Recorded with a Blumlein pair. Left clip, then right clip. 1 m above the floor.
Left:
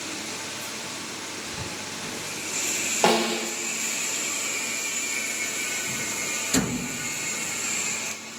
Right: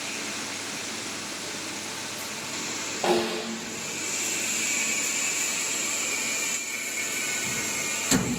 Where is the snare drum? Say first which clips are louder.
Left 3 dB; 65° left, 1.8 m.